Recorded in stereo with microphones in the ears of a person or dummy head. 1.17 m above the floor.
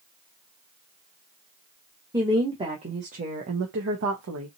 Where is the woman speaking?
10° right (ahead or behind), 1.4 m; by 4.5 s 75° right (ahead or behind), 1.2 m.